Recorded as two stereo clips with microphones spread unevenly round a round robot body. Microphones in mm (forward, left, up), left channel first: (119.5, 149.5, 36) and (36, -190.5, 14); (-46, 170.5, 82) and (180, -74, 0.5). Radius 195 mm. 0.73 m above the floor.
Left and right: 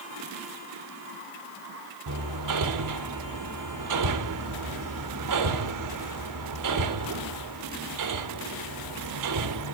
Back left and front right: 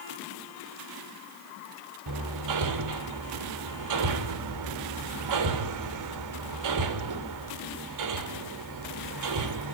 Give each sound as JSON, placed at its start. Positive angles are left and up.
{"t": 2.1, "sound": "hammering", "azimuth_deg": -75, "distance_m": 2.5}